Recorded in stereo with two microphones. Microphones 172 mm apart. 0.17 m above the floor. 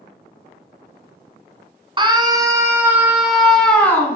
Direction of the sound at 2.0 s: 30° right (ahead or behind).